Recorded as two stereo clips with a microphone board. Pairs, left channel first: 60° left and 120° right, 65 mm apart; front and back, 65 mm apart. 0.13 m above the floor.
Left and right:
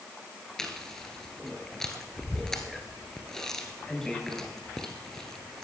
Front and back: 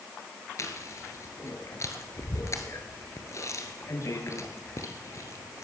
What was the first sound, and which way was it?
Chewing, 20° right.